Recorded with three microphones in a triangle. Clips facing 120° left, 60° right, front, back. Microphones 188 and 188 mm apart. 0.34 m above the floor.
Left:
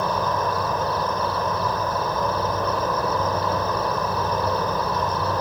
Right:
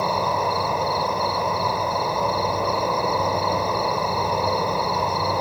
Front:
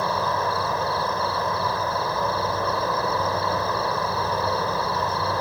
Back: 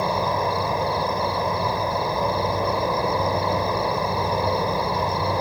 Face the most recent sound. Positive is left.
turn(degrees=-130)